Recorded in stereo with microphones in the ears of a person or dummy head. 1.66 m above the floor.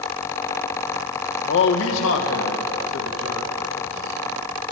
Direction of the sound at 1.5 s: 65° left (ahead or behind).